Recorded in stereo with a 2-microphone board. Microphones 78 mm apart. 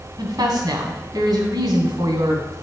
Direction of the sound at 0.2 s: 60° right (ahead or behind).